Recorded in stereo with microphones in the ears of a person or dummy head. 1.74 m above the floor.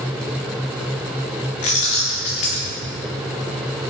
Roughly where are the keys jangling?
Left.